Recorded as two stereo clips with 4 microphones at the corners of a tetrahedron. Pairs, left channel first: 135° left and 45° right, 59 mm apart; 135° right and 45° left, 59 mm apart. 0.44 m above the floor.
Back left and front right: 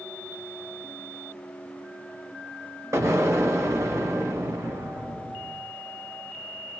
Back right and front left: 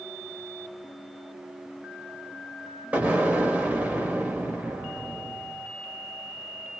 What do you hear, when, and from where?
2.9 s an explosion: 20° right, 1.4 m